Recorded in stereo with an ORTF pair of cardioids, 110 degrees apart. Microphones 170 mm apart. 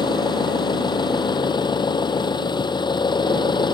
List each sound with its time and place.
0.0 s an engine running: 25° left